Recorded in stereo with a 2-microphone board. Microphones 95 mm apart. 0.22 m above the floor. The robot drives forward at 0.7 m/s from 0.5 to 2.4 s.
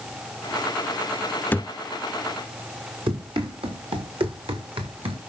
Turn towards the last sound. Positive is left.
turn(degrees=-85)